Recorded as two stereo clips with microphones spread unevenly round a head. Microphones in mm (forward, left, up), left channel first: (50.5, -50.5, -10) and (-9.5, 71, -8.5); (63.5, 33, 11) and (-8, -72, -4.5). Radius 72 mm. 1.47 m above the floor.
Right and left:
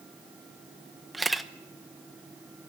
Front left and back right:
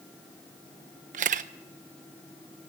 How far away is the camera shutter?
About 0.7 m.